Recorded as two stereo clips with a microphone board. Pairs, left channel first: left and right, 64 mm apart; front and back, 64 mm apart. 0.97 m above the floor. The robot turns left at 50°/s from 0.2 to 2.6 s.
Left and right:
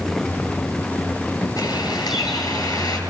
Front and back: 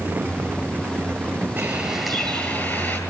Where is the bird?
115° left, 8.5 m; by 3.0 s 65° left, 8.5 m.